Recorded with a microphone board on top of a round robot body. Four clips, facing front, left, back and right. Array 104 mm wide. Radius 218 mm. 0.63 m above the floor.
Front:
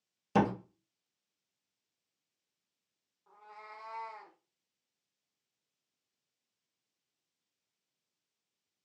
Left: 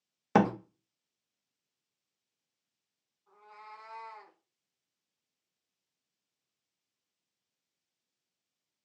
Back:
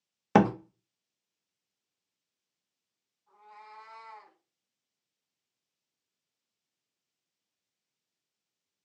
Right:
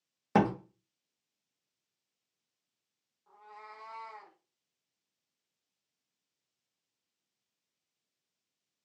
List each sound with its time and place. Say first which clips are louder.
0.3 s a door slam: left 2 dB, back 6 dB; 165° left, 0.6 m
3.3 s a cat meowing: even, even; 25° right, 0.6 m